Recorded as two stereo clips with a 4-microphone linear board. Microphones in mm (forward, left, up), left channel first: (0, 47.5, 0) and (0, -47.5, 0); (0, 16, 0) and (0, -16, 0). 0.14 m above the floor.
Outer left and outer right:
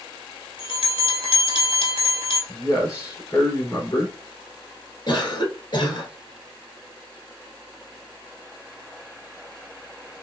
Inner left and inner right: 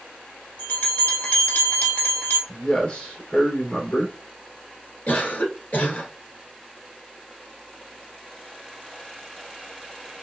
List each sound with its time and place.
0.6 s a bell: 60° left (ahead or behind), 1.7 m
2.5 s a man speaking: 35° left (ahead or behind), 2 m
5.1 s a cough: 50° left (ahead or behind), 1.6 m